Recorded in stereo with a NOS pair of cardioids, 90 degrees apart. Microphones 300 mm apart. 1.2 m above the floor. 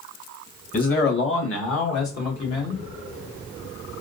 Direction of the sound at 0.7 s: 25° left.